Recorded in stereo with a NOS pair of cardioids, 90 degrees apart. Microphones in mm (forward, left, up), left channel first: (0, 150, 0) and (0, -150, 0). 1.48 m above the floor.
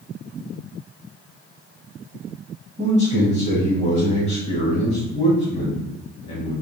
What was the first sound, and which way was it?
A man speaking, 20° left.